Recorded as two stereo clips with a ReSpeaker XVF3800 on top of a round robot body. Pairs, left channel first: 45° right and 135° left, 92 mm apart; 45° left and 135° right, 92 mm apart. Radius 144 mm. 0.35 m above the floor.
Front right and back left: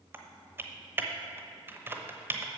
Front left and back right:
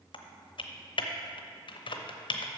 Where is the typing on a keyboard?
70° left, 1.0 m.